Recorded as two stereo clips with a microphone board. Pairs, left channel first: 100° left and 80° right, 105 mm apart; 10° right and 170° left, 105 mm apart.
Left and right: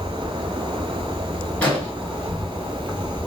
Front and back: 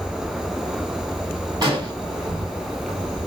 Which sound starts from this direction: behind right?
An insect, at 0.0 s.